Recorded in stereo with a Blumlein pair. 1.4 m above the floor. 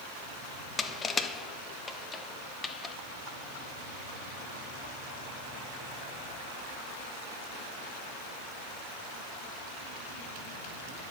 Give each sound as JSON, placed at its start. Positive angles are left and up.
{"t": 0.8, "sound": "crushing", "azimuth_deg": 15, "distance_m": 0.6}